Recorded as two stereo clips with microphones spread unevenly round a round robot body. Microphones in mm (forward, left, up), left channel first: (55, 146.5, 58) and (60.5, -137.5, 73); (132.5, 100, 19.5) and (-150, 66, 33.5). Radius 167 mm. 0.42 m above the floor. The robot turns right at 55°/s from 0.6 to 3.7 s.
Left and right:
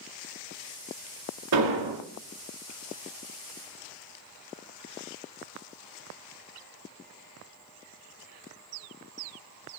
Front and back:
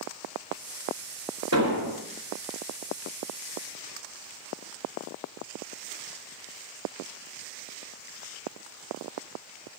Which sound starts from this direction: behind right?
An explosion, at 1.5 s.